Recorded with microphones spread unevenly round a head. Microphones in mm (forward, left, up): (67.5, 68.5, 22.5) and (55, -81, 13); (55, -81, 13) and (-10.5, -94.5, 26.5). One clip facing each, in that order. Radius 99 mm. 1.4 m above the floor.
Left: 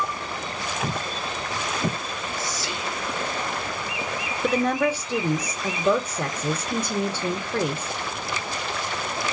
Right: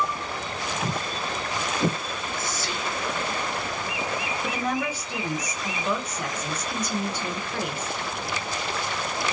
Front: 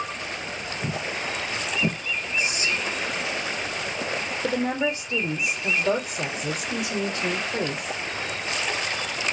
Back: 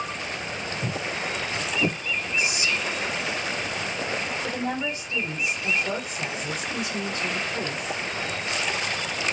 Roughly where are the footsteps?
Behind.